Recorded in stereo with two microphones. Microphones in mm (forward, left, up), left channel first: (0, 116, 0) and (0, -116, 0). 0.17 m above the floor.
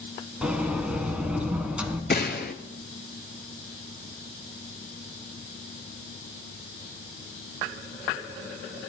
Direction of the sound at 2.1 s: 45° left (ahead or behind).